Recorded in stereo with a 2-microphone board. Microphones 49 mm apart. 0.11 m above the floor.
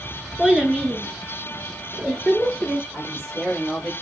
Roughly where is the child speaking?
Centre.